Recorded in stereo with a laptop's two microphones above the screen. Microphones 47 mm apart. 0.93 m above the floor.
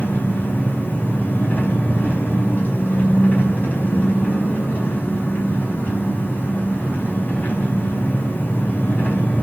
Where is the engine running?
40° left (ahead or behind), 4.5 m.